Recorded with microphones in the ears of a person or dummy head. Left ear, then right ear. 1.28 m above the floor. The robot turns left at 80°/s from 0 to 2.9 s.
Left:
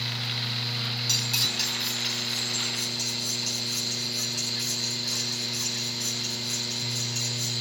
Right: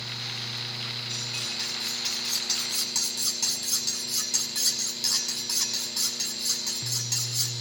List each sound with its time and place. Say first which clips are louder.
1.1 s cutlery clinking: left 6 dB; 70° left, 7.5 m; by 7.5 s 75° right, 7.5 m